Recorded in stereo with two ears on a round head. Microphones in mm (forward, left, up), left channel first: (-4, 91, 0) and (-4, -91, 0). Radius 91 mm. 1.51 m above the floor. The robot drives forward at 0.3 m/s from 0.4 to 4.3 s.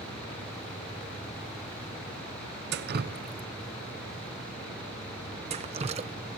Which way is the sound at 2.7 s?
55° right (ahead or behind).